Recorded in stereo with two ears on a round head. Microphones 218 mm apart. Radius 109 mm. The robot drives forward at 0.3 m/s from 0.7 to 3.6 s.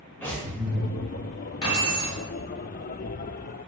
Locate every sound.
0.2 s breathing: 10° left (ahead or behind), 1.5 m; by 0.9 s 5° left (ahead or behind), 1.5 m
1.6 s keys jangling: 20° left (ahead or behind), 1.7 m